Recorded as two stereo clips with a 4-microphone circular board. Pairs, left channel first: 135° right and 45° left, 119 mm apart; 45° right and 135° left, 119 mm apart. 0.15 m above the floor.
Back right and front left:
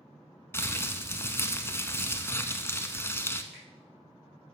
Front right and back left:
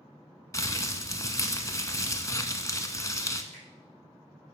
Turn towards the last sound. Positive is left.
turn(degrees=130)